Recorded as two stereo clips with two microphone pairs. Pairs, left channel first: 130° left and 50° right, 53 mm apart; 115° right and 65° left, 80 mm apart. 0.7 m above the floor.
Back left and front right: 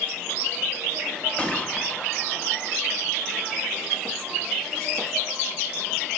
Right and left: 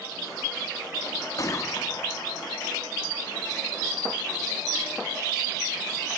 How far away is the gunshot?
About 0.6 m.